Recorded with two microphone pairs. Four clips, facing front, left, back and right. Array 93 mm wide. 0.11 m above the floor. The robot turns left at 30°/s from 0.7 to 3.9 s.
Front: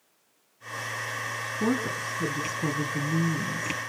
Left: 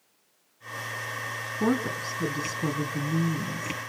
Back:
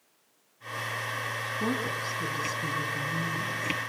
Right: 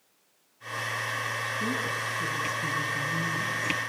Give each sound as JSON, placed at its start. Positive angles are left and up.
{"t": 1.6, "sound": "a woman speaking", "azimuth_deg": 95, "distance_m": 5.0}